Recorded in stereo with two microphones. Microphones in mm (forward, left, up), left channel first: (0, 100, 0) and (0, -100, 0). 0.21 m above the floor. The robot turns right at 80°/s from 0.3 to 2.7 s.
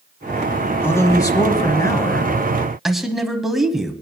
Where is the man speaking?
10° left (ahead or behind), 1.1 m; by 3.9 s centre (ahead or behind), 1.1 m.